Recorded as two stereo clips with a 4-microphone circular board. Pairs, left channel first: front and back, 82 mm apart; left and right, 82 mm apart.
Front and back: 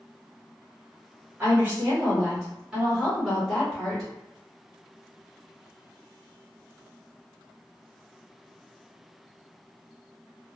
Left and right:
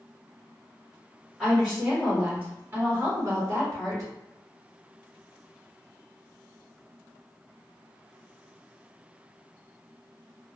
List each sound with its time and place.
1.4 s a woman speaking: 170° left, 1.4 m; by 4.1 s 85° right, 1.7 m